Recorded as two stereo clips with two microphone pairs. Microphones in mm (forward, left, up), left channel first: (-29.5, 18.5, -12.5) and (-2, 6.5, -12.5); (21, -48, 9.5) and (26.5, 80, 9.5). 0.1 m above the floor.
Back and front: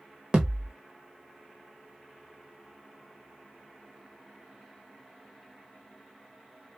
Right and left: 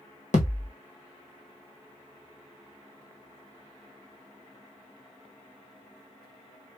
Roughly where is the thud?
Right.